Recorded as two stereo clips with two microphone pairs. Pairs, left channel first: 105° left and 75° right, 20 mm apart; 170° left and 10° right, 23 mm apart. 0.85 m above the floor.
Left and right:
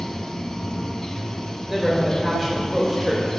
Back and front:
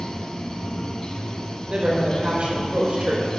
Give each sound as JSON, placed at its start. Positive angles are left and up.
{"t": 0.0, "sound": "running water", "azimuth_deg": 145, "distance_m": 0.8}
{"t": 1.7, "sound": "a woman speaking", "azimuth_deg": 10, "distance_m": 3.0}